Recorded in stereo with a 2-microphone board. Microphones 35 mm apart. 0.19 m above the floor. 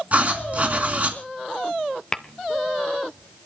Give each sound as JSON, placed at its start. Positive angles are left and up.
{"t": 0.1, "sound": "writing", "side_deg": -40, "distance_m": 2.5}
{"t": 2.1, "sound": "tapping", "side_deg": 20, "distance_m": 0.6}